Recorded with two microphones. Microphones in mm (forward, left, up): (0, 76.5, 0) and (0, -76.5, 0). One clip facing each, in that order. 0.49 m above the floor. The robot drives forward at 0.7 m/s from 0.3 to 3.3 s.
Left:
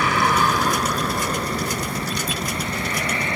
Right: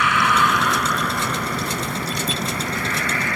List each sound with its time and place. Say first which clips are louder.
0.0 s a vehicle: even; 35° left (ahead or behind); by 3.4 s 25° left (ahead or behind)